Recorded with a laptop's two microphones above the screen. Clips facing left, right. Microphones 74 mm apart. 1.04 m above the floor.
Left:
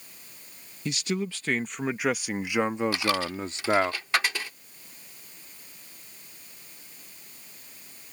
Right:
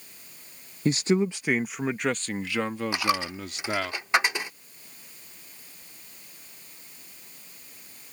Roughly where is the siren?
No siren in this recording.